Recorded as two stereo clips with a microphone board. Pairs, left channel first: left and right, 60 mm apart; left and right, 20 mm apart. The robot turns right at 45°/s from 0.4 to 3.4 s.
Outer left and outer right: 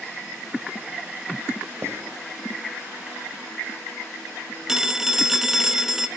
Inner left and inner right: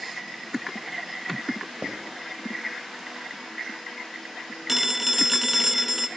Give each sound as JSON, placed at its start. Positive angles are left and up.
{"t": 1.8, "sound": "writing", "side_deg": -45, "distance_m": 3.0}
{"t": 4.7, "sound": "a phone ringing", "side_deg": -5, "distance_m": 1.0}